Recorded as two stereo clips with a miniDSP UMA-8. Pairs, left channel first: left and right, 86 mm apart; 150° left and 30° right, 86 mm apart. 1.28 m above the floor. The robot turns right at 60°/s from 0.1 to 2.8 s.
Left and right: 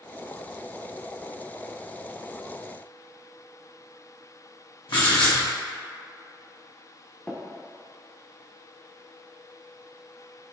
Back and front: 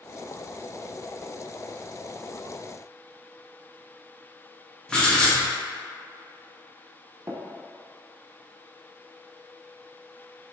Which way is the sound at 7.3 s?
20° left.